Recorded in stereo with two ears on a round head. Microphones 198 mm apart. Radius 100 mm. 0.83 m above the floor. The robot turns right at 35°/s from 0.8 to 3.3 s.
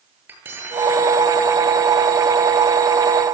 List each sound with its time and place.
0.3 s cutlery clinking: 10° right (ahead or behind), 9 m; by 1.0 s centre (ahead or behind), 9 m